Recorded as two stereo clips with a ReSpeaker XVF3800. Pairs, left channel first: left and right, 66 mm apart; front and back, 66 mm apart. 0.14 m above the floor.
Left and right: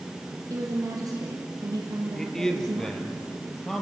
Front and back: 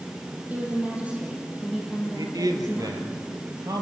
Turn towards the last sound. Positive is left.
turn(degrees=175)